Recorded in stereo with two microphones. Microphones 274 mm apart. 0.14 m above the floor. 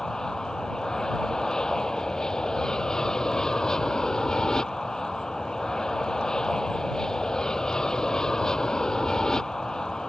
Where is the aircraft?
Centre (ahead or behind).